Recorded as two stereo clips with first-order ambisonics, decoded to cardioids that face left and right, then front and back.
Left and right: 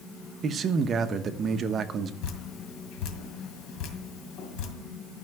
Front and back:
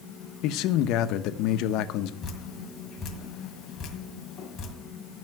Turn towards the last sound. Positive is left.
turn(degrees=65)